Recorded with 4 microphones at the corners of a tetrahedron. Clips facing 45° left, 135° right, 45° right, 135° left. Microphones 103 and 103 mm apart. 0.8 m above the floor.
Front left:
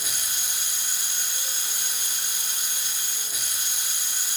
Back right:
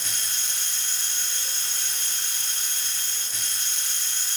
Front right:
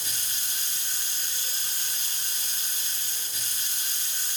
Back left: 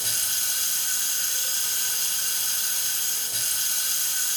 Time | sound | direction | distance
0.0 | running water | 125° left | 1.2 m